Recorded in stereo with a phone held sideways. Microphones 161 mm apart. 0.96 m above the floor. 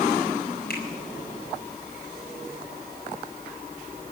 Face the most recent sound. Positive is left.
turn(degrees=75)  # may be behind; listen again after turning